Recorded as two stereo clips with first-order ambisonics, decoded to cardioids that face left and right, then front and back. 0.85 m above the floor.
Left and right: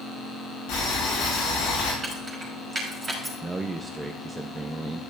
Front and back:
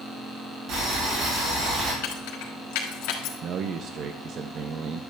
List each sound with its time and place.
0.7 s boiling: 135° left, 7 m
2.0 s keys jangling: 15° right, 3 m
3.4 s a man speaking: 160° right, 0.5 m